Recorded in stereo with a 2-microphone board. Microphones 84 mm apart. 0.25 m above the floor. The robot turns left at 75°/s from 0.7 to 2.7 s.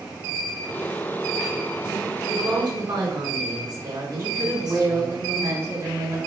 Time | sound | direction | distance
2.3 | a woman speaking | 30° right | 2.5 m
4.2 | a woman speaking | 35° right (ahead or behind) | 2 m